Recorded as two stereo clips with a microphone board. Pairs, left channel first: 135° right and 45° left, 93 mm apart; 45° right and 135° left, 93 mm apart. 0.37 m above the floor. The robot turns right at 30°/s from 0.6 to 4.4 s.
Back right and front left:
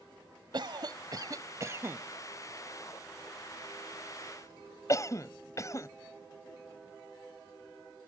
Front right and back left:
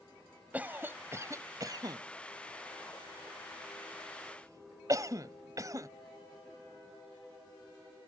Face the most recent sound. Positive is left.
turn(degrees=180)